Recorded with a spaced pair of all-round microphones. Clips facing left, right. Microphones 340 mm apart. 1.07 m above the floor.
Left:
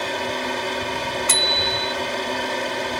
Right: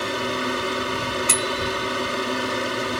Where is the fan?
15° right (ahead or behind).